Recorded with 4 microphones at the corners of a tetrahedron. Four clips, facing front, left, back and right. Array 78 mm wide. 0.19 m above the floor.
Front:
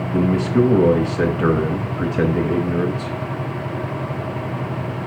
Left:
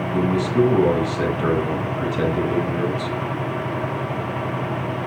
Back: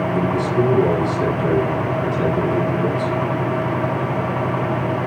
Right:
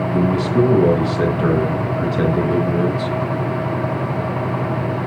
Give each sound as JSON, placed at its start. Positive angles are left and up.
{"t": 0.1, "sound": "a man speaking", "azimuth_deg": -5, "distance_m": 2.5}